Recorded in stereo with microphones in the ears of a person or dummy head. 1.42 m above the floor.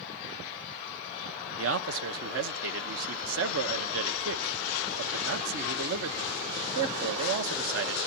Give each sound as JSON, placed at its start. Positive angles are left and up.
{"t": 1.6, "sound": "a man speaking", "side_deg": -60, "distance_m": 1.1}